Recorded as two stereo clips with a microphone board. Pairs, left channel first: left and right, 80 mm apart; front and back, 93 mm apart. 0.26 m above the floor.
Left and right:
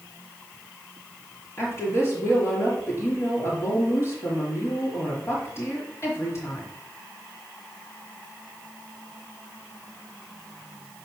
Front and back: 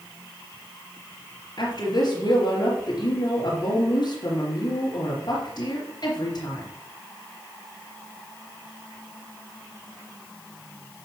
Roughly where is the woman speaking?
Ahead left.